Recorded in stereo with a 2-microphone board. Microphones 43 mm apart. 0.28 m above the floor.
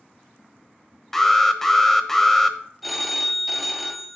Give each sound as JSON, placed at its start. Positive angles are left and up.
{"t": 1.1, "sound": "an alarm", "side_deg": 10, "distance_m": 0.7}
{"t": 2.8, "sound": "a phone ringing", "side_deg": 0, "distance_m": 0.7}